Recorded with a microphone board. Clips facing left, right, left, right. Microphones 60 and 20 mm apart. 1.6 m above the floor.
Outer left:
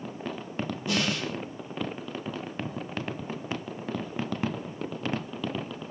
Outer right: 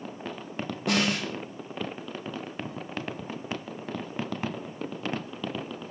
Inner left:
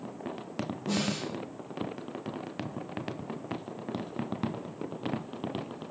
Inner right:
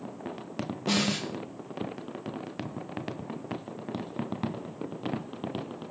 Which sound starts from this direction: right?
A snare drum, at 0.9 s.